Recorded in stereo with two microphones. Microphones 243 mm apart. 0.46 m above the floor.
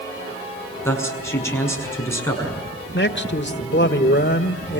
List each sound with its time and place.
0.8 s a man speaking: 10° left (ahead or behind), 6 m
2.9 s a man speaking: 50° left (ahead or behind), 1.3 m